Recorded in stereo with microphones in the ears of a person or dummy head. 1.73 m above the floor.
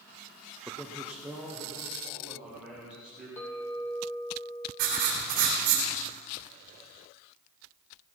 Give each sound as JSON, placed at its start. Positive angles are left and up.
{"t": 0.7, "sound": "a man speaking", "side_deg": -10, "distance_m": 0.5}
{"t": 3.4, "sound": "a clink", "side_deg": 25, "distance_m": 3.0}
{"t": 4.8, "sound": "writing", "side_deg": -50, "distance_m": 2.5}